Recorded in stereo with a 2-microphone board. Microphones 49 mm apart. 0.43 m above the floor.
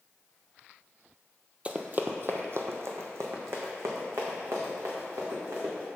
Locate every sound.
1.6 s running footsteps: 25° right (ahead or behind), 0.5 m; by 5.9 s 80° right, 2.5 m